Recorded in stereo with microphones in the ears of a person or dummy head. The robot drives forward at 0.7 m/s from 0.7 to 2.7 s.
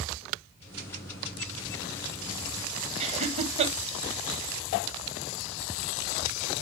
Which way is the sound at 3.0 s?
35° right (ahead or behind).